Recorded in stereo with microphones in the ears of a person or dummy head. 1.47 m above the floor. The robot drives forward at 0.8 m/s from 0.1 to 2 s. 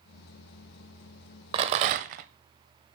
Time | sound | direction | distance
1.5 | a rattle | 30° right (ahead or behind) | 0.6 m